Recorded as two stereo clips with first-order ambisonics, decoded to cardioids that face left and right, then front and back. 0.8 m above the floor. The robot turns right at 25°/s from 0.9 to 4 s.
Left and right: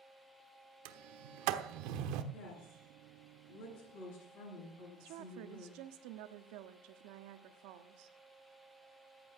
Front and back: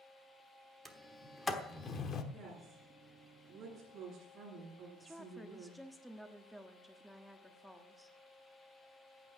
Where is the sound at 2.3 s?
80° left, 9 m; by 5.8 s 120° left, 9 m.